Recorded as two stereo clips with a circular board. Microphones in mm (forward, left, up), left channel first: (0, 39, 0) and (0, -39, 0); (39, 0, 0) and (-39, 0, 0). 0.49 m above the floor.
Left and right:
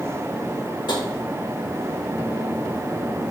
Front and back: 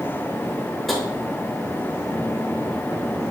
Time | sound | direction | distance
0.9 | tapping | 85° left | 0.9 m